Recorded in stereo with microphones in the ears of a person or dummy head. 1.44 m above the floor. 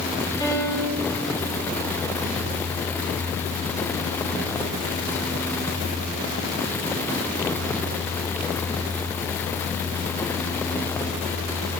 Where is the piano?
20° left (ahead or behind), 9 m.